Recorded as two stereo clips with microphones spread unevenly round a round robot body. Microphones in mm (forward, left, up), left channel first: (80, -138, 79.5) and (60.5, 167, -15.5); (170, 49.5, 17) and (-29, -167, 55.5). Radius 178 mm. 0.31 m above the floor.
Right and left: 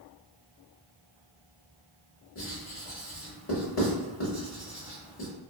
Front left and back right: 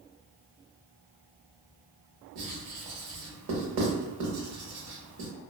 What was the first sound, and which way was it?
Writing, 145° right.